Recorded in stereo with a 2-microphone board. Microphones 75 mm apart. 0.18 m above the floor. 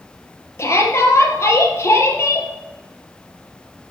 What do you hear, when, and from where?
0.6 s a shout: 35° left (ahead or behind), 4.5 m